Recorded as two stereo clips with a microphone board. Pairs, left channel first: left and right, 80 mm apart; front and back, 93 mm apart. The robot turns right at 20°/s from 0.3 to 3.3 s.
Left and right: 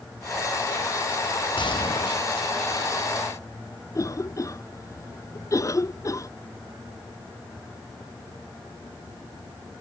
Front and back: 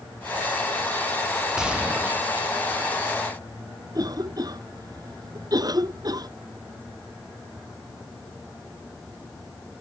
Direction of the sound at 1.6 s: 95° left.